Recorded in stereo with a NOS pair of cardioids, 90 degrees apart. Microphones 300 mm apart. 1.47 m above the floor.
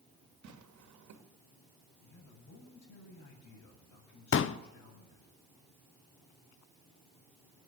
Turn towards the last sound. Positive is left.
turn(degrees=45)